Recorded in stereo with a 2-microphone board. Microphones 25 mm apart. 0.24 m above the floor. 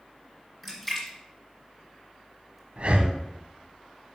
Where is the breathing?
50° right (ahead or behind), 0.7 m.